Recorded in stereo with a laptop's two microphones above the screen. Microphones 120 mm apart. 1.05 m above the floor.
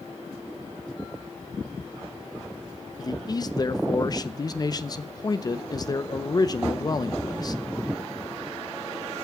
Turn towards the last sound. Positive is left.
turn(degrees=35)  # may be behind; listen again after turning